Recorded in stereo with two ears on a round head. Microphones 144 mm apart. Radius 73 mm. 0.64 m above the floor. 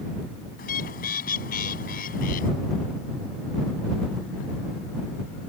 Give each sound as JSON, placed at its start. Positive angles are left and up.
{"t": 0.6, "sound": "a bird", "side_deg": 55}